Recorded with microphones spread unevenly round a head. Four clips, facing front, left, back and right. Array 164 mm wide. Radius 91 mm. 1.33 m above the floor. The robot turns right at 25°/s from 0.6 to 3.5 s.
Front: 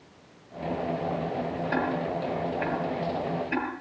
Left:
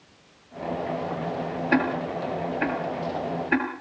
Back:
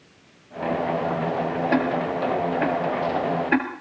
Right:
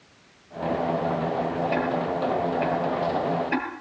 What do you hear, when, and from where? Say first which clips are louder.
1.7 s ticking: even, back 4 dB; 120° left, 5.5 m; by 3.7 s 165° left, 5.5 m